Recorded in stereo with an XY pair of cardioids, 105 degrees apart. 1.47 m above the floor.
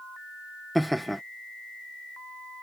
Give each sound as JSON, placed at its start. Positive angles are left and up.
{"t": 0.8, "sound": "laughter", "azimuth_deg": 0}